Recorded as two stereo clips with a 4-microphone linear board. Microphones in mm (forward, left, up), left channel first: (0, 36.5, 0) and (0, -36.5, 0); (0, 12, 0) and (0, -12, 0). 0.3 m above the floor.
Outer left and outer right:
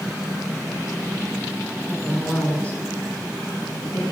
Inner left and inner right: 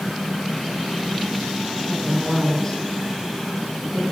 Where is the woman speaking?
10° left (ahead or behind), 3 m; by 4.0 s 45° left (ahead or behind), 2.5 m.